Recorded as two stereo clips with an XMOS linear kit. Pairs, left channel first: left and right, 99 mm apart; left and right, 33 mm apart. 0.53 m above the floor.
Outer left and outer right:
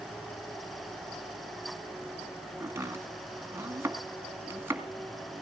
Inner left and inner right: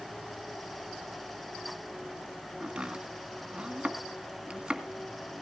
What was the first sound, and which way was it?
Chopping, 25° right (ahead or behind).